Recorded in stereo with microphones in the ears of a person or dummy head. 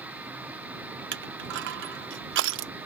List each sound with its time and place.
0.0 s a machine running: 10° right (ahead or behind)
1.1 s crushing: 65° right (ahead or behind)